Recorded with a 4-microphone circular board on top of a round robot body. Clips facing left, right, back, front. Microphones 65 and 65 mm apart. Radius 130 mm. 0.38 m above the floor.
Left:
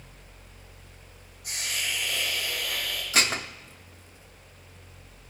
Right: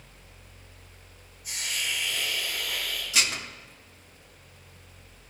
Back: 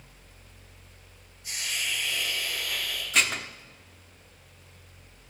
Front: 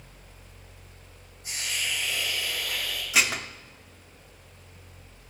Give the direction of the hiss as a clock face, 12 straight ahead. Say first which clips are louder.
Even, front 1 dB; 10 o'clock.